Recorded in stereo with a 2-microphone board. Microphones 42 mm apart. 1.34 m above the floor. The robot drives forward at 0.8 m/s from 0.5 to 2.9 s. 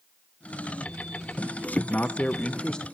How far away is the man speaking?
About 0.9 m.